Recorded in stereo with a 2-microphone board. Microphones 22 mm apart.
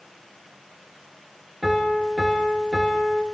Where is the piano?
5° right (ahead or behind), 2.5 m.